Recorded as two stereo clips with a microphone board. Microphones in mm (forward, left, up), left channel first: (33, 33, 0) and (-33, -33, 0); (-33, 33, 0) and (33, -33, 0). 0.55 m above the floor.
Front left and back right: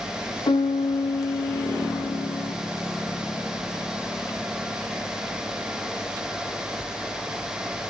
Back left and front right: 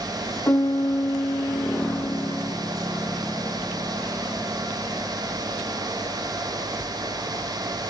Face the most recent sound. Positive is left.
turn(degrees=75)